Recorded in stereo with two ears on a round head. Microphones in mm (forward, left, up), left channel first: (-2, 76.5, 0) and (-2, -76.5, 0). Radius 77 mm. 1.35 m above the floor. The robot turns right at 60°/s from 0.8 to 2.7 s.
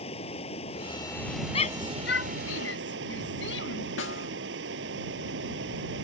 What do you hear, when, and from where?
0.0 s running water: 145° left; by 6.0 s 100° right
1.5 s a shout: 30° left (ahead or behind); by 3.9 s 75° left (ahead or behind)
4.0 s a snare drum: 80° left